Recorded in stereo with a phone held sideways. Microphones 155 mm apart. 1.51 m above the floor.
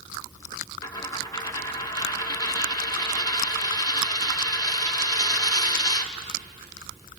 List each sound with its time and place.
0.8 s a dropped coin: 25° left (ahead or behind), 1.6 m